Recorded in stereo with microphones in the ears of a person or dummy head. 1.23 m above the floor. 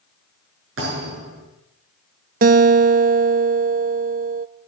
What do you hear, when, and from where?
0.8 s a thud: 80° right, 8 m
2.4 s a guitar: 40° right (ahead or behind), 0.5 m